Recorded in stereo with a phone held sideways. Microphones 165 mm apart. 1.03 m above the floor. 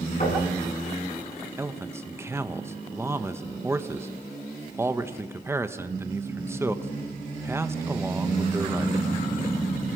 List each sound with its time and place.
0.2 s knocking: 50° left (ahead or behind), 7 m
1.6 s a man speaking: 15° right (ahead or behind), 1.0 m